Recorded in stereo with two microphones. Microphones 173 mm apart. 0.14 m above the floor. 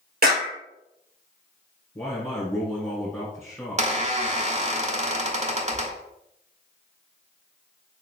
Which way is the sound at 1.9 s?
15° left (ahead or behind).